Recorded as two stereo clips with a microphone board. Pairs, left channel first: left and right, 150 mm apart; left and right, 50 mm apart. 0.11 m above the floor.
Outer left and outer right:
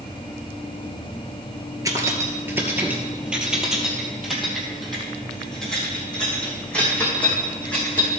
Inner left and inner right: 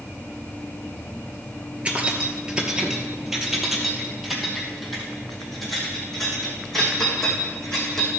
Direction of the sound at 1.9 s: 20° right (ahead or behind).